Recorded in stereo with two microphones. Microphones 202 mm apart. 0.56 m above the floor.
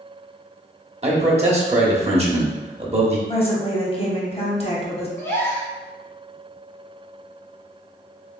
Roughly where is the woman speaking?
Left.